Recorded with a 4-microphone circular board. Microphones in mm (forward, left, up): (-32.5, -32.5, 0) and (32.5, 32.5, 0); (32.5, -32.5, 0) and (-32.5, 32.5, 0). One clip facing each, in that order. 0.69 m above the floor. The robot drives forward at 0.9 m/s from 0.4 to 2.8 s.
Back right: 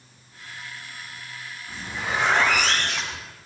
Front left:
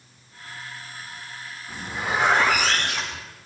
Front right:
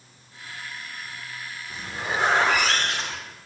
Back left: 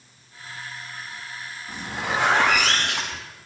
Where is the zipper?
125° left, 6.5 m; by 3.3 s 130° left, 7 m.